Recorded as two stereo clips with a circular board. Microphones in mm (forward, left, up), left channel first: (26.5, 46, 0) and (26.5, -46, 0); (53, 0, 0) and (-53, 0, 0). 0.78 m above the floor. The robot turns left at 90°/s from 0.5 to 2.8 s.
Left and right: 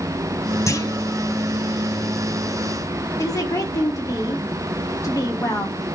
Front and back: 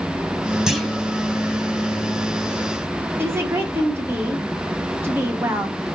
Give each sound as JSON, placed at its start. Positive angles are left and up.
{"t": 0.7, "sound": "a clunk", "azimuth_deg": 100, "distance_m": 0.7}
{"t": 3.2, "sound": "a woman speaking", "azimuth_deg": 125, "distance_m": 1.2}